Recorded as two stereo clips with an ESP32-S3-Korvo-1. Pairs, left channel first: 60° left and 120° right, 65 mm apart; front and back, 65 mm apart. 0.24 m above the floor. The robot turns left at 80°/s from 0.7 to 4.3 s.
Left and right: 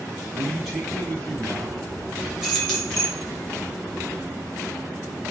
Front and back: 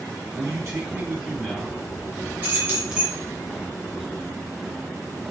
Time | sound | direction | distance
0.3 | a man speaking | 150° left | 2.0 m
2.4 | keys jangling | 170° left | 0.9 m